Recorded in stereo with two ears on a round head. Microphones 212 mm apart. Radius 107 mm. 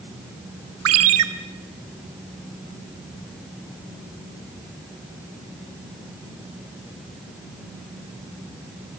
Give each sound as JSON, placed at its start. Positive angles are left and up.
{"t": 0.8, "sound": "a ringtone", "side_deg": -65, "distance_m": 1.5}